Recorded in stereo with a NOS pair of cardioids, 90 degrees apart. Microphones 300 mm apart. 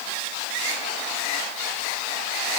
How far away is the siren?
No siren in this recording.